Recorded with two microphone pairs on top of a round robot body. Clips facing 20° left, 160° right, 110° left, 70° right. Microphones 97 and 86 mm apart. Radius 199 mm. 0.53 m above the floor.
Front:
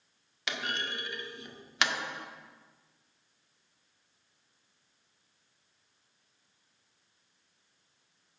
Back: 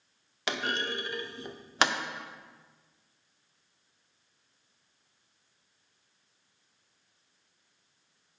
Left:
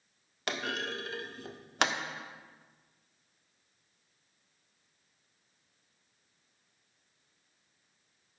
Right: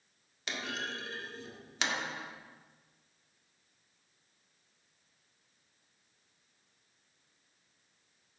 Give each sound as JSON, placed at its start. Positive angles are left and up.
{"t": 0.5, "sound": "a clunk", "azimuth_deg": 145, "distance_m": 0.6}